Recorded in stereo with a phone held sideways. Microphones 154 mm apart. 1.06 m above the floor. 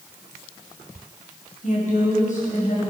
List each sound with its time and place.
1.6 s a woman speaking: 60° left (ahead or behind), 6 m